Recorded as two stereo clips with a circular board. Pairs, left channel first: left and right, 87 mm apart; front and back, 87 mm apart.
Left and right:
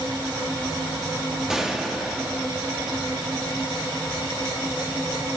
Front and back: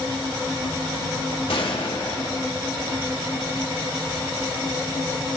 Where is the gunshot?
5° right, 2.0 m.